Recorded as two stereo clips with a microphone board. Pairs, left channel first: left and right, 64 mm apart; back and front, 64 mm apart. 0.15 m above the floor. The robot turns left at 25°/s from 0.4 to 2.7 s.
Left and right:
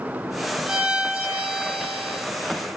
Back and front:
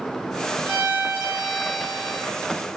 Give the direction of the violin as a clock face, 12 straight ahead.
1 o'clock.